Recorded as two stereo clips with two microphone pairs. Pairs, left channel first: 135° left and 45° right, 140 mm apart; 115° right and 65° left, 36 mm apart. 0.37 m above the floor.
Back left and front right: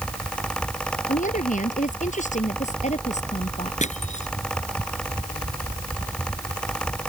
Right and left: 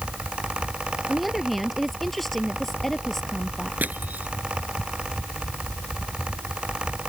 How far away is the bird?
I don't hear a bird.